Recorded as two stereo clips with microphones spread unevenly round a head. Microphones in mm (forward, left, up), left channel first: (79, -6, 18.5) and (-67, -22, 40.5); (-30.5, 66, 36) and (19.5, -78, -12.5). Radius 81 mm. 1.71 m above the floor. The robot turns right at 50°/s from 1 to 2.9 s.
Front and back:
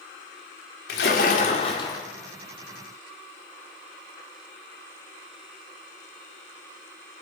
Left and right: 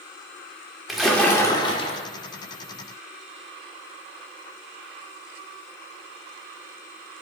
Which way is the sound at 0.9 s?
30° left.